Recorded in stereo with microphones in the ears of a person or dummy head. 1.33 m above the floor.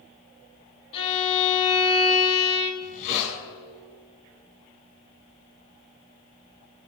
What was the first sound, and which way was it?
A violin, 25° left (ahead or behind).